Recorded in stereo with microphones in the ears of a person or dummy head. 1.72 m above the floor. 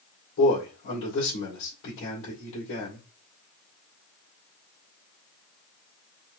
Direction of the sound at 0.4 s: 75° left (ahead or behind).